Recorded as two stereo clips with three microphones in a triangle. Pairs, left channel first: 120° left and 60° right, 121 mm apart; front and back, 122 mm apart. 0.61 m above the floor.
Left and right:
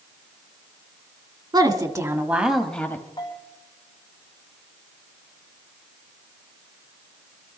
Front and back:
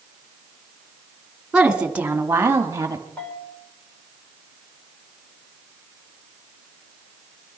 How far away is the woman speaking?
About 1.8 m.